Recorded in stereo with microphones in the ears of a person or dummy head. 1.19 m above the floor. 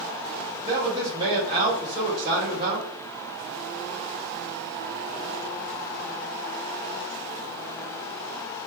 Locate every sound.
0.6 s a man speaking: 30° right (ahead or behind), 1.1 m